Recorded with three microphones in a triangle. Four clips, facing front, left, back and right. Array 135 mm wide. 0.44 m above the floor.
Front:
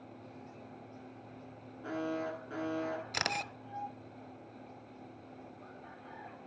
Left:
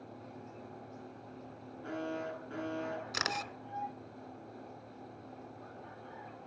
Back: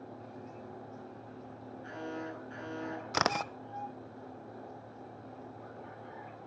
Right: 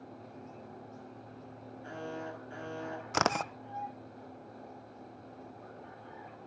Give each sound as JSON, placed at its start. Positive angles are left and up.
{"t": 1.8, "sound": "an alarm", "azimuth_deg": 30, "distance_m": 9.5}
{"t": 3.1, "sound": "a camera shutter", "azimuth_deg": -115, "distance_m": 0.6}